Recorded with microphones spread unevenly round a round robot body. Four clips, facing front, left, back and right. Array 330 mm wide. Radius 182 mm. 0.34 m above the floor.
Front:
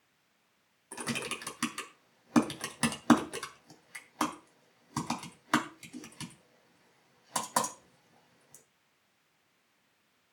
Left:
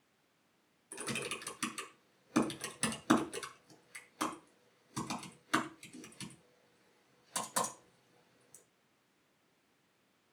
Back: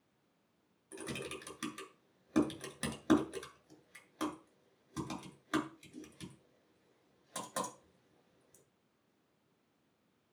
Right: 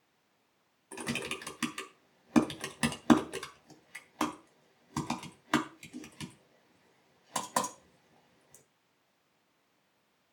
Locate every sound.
0.9 s typing on a keyboard: 45° right, 3.5 m